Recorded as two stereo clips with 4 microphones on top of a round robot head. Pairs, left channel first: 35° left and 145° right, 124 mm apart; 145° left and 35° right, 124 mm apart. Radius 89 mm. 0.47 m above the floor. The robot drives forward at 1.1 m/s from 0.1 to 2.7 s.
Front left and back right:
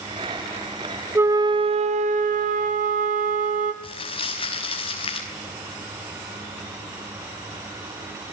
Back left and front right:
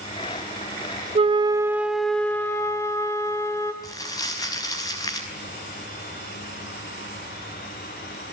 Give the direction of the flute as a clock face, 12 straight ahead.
2 o'clock.